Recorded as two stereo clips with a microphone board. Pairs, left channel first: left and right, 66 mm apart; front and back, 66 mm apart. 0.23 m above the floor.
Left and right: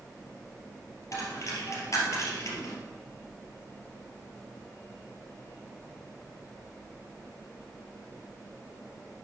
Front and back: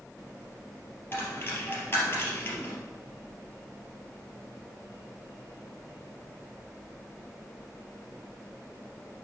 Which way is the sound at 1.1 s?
50° left.